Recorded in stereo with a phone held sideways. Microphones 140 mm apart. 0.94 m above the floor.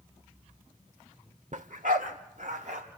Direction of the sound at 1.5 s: 60° right (ahead or behind).